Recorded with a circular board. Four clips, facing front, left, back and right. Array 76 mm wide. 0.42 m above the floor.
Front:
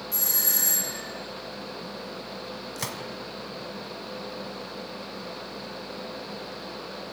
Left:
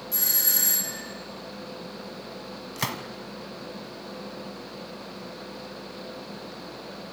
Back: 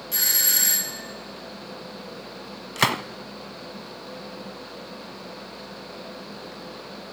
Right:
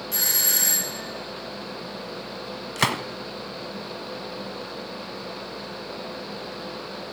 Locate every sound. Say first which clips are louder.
0.1 s a doorbell: right 5 dB, back 3 dB; 150° right, 3.5 m
2.8 s a gunshot: right 8 dB, back 15 dB; 150° right, 0.6 m